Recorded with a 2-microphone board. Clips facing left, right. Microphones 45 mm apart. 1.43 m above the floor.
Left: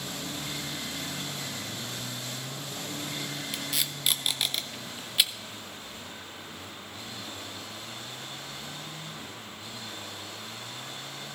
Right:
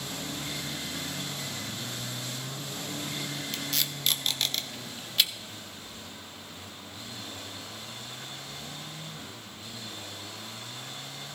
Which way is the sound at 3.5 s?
10° left (ahead or behind).